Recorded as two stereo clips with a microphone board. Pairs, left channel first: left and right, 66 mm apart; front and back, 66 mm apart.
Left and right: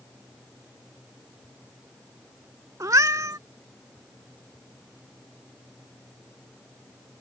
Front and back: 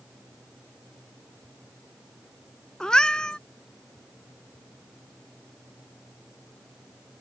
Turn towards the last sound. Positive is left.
turn(degrees=-75)